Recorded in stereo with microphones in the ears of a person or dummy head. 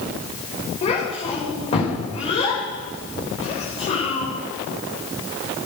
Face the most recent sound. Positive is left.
turn(degrees=30)  # may be behind; listen again after turning